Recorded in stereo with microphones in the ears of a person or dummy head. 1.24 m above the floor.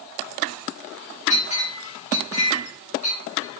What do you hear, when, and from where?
1.3 s a clink: 35° left (ahead or behind), 3 m